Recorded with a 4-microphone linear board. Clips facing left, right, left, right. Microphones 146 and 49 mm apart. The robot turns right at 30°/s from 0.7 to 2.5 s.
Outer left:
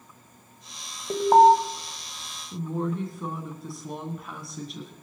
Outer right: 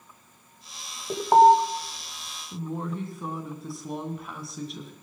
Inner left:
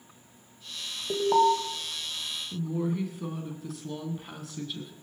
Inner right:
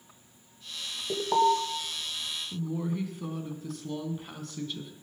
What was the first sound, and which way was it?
An alarm, 5° left (ahead or behind).